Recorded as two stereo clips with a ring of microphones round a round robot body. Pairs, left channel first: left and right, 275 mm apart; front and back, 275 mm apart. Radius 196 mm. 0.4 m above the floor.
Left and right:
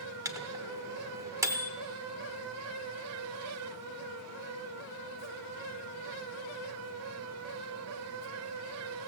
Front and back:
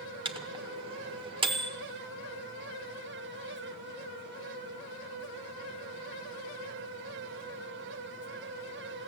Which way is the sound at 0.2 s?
150° right.